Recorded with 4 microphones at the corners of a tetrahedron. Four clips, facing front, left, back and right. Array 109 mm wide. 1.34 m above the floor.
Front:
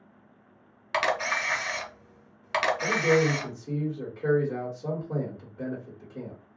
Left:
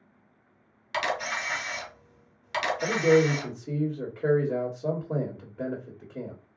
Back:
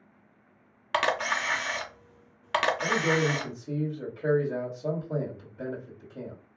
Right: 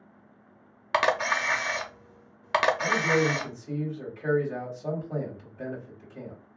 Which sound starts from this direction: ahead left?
A man speaking, at 2.8 s.